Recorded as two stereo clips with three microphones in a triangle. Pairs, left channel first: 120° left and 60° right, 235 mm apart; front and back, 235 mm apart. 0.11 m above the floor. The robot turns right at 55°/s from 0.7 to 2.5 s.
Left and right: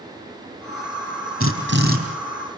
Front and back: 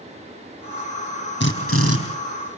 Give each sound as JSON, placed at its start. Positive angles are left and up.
{"t": 1.4, "sound": "a drill", "azimuth_deg": -40, "distance_m": 5.0}